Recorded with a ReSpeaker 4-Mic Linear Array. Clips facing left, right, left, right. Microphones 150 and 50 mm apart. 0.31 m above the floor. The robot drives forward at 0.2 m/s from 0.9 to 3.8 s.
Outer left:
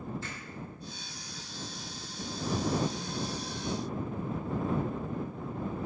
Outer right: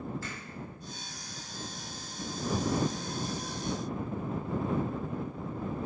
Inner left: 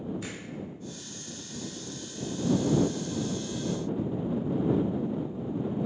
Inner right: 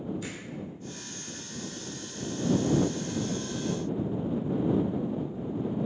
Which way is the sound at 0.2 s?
20° left (ahead or behind).